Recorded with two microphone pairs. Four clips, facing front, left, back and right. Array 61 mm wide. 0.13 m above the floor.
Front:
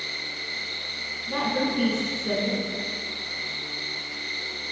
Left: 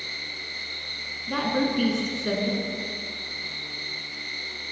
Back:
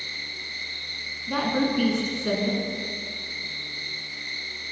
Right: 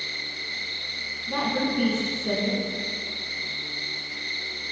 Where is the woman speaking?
110° left, 1.1 m.